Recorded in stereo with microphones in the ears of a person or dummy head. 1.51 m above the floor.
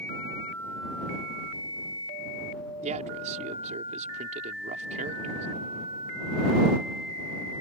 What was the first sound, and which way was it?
A man speaking, 40° right (ahead or behind).